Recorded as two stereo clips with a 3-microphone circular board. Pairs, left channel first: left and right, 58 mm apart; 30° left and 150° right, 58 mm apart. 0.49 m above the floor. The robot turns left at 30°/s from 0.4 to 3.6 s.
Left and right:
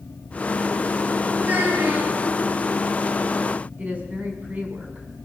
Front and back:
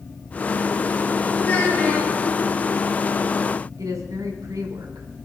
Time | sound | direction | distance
1.4 | a child speaking | 20° right | 8 m
3.8 | a woman speaking | 150° right | 5 m